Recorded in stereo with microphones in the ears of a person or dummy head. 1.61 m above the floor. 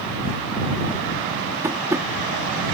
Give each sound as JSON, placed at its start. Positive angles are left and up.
{"t": 1.6, "sound": "tapping", "side_deg": -15}